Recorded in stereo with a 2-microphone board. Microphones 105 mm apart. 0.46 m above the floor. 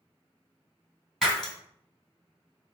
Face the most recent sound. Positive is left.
turn(degrees=0)  # may be behind; listen again after turning